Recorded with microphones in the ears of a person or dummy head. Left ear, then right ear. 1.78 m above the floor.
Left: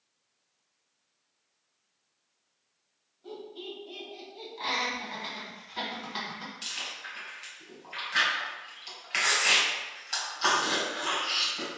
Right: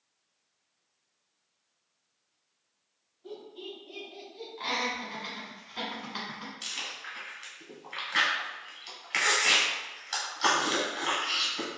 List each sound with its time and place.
3.2 s laughter: 25° left (ahead or behind), 1.4 m; by 4.5 s 5° left (ahead or behind), 0.7 m
4.6 s laughter: centre (ahead or behind), 1.4 m
6.6 s chewing: 5° right (ahead or behind), 1.1 m